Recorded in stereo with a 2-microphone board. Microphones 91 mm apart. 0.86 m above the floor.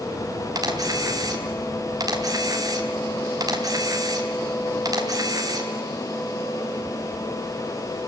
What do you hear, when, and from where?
0.6 s a camera shutter: 40° right (ahead or behind), 3.5 m